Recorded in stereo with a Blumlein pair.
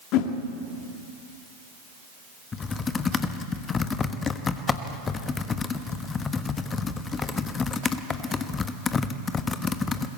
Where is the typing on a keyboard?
20° left, 1.1 m.